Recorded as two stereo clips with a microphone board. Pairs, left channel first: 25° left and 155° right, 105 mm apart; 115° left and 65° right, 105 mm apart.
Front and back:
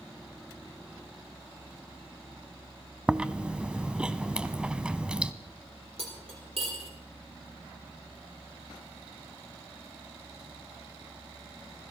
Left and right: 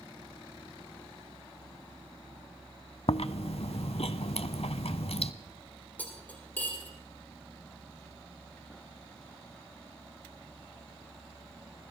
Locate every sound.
3.1 s chewing: 120° left, 0.6 m
6.0 s cutlery clinking: 175° right, 4.5 m